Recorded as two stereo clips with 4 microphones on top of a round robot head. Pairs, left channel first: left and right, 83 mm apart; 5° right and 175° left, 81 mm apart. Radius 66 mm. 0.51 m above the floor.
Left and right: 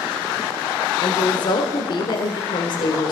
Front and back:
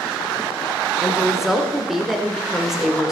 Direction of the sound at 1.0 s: 95° left.